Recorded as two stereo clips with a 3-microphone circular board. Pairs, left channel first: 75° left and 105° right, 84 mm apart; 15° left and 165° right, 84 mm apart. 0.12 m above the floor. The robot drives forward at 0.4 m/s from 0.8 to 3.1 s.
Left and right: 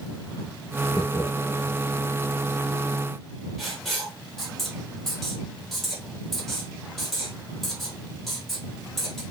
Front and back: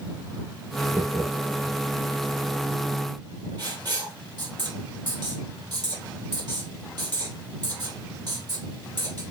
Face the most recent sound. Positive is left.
turn(degrees=165)